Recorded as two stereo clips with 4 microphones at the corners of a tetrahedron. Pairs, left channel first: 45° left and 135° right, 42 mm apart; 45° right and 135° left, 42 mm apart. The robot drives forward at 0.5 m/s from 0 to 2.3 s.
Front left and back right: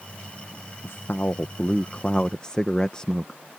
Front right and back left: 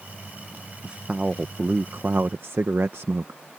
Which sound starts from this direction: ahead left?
A man speaking, at 0.8 s.